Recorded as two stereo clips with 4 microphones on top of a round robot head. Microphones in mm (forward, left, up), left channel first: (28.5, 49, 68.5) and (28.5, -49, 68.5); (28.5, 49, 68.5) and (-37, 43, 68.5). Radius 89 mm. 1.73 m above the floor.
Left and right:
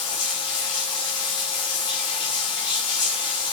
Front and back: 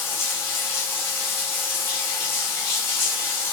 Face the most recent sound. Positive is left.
turn(degrees=55)